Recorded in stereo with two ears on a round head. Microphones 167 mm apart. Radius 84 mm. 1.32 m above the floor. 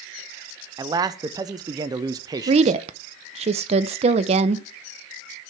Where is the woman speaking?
35° right (ahead or behind), 0.5 m.